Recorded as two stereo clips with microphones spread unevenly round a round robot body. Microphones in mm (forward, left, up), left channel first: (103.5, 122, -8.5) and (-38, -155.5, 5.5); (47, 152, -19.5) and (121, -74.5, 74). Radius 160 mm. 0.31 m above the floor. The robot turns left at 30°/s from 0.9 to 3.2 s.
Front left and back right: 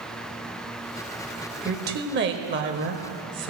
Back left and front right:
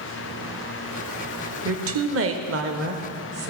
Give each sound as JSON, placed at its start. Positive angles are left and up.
{"t": 1.6, "sound": "a woman speaking", "azimuth_deg": -80, "distance_m": 1.0}